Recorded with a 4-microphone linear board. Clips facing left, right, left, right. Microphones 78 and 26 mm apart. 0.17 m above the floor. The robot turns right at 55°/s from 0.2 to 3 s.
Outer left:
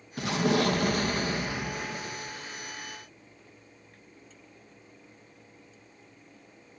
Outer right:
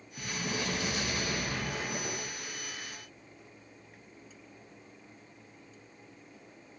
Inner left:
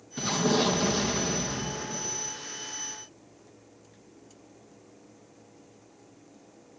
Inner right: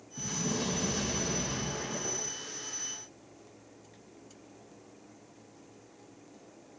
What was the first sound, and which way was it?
An explosion, 90° left.